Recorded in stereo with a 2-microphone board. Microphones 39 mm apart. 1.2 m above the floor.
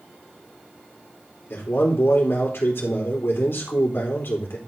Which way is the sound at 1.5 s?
70° left (ahead or behind).